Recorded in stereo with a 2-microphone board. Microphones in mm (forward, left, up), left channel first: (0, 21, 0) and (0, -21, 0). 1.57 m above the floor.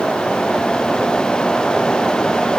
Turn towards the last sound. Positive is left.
No sound to turn to.